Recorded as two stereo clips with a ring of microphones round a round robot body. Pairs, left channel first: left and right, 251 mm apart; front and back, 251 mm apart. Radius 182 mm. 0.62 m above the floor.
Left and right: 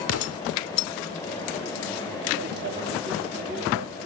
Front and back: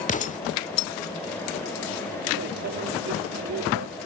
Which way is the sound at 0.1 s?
65° left.